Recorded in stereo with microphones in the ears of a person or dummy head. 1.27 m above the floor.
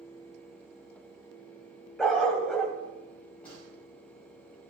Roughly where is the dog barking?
Centre.